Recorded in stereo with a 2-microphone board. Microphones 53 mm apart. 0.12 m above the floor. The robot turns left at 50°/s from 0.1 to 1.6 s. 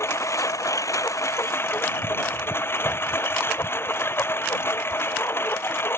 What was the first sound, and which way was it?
A lawn mower, 120° left.